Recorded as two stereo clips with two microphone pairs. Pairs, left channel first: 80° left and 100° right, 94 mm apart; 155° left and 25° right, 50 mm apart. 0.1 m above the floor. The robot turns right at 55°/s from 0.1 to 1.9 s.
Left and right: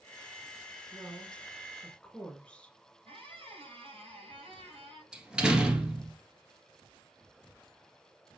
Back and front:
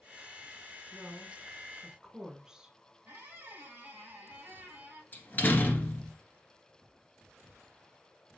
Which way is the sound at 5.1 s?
175° right.